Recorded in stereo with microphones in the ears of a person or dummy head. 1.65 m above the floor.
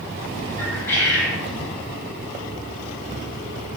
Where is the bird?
15° left (ahead or behind), 1.1 m.